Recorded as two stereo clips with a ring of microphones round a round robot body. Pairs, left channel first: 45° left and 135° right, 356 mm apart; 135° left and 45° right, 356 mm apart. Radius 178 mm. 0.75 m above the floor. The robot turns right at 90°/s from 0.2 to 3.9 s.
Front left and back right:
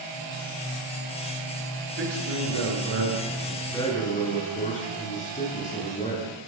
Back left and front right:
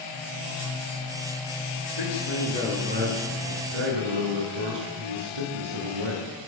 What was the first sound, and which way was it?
A man speaking, 160° left.